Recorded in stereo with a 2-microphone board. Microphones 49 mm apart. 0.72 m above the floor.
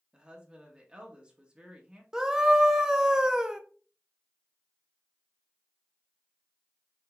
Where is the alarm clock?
I don't hear an alarm clock.